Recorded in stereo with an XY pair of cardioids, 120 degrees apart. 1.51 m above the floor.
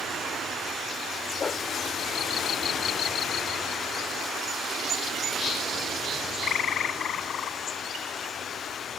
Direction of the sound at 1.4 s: 35° left.